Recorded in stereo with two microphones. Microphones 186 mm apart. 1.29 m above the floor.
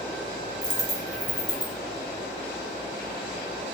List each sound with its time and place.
0.6 s a dropped coin: 35° left (ahead or behind), 1.7 m